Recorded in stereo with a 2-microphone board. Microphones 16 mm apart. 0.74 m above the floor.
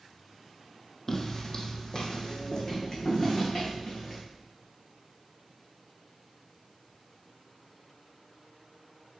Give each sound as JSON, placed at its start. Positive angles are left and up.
{"t": 1.1, "sound": "footsteps", "side_deg": 30, "distance_m": 1.5}